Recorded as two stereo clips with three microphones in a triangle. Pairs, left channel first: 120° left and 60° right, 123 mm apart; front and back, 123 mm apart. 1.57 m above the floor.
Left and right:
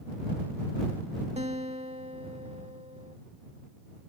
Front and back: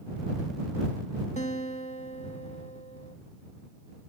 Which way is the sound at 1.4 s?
25° right.